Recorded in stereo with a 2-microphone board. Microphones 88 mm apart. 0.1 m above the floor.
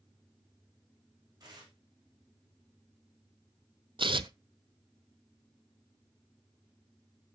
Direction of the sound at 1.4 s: 50° right (ahead or behind).